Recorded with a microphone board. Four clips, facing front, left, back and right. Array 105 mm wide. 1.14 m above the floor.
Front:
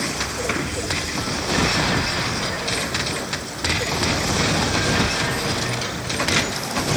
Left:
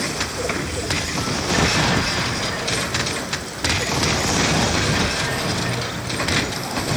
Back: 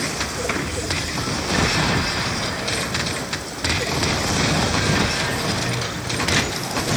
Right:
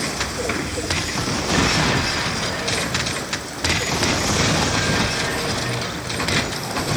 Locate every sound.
Only background noise.